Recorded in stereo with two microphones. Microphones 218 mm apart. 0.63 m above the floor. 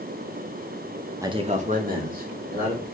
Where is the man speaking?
15° right (ahead or behind), 0.5 m; by 2.8 s 45° right (ahead or behind), 2.5 m.